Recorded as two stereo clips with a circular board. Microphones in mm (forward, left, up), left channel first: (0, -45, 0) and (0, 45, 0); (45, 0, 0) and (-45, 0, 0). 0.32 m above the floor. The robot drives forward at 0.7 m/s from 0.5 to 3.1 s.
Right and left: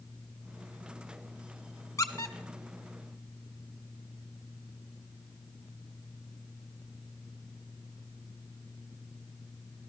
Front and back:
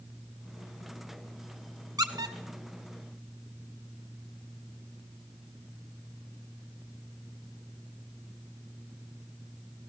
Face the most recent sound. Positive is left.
turn(degrees=-160)